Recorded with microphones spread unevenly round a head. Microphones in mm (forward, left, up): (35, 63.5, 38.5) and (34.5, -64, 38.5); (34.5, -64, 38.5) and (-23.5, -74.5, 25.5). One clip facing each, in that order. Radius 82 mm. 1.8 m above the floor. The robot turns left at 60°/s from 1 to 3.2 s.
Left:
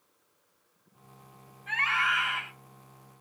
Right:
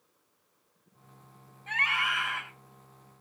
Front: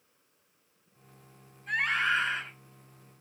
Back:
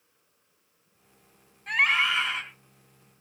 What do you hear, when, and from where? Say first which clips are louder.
1.7 s a scream: left 2 dB, back 4 dB; 150° right, 7 m; by 2.4 s 160° left, 7 m